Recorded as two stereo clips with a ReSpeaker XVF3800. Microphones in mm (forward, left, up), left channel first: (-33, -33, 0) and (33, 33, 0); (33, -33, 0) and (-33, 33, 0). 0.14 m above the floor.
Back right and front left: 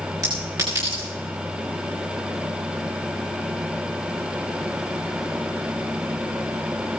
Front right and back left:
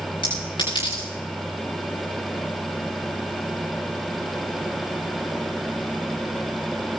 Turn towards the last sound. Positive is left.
turn(degrees=-10)